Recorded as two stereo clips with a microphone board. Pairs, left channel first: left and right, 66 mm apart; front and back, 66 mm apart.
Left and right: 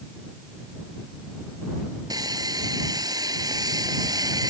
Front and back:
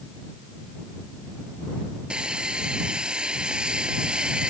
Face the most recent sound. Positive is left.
turn(degrees=-105)